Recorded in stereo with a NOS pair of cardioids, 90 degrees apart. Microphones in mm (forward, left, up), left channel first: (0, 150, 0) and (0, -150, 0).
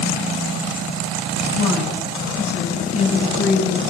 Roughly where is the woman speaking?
Ahead left.